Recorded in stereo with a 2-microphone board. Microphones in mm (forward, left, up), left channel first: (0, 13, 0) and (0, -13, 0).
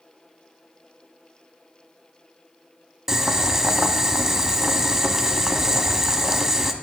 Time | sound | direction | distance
3.1 | boiling | 15° right (ahead or behind) | 1.2 m